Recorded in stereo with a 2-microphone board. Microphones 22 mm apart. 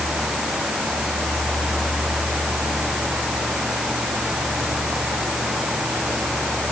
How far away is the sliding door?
I don't hear a sliding door.